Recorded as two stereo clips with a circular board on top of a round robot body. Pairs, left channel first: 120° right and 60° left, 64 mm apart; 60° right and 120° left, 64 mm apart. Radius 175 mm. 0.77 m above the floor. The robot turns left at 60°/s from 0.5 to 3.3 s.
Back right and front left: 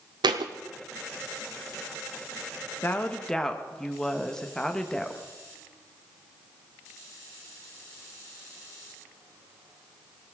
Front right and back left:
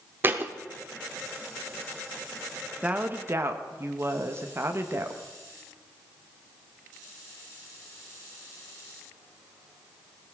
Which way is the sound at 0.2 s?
60° left.